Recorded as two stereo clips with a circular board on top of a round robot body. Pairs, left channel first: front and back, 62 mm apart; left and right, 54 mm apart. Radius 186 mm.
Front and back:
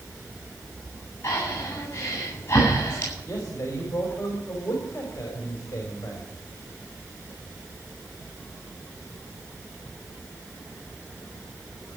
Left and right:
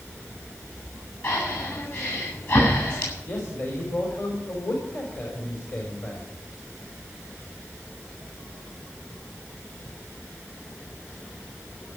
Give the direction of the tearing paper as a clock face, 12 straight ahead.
No tearing paper in this recording.